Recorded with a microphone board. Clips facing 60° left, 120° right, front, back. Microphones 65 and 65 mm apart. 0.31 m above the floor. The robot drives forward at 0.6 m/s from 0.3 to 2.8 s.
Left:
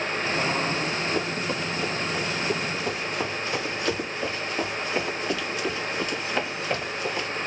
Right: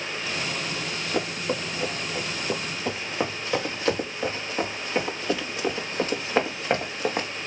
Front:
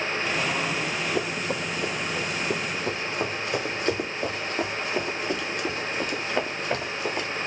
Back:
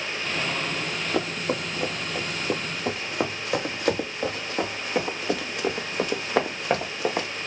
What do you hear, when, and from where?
0.8 s running footsteps: 165° left, 6 m; by 7.3 s 165° right, 3 m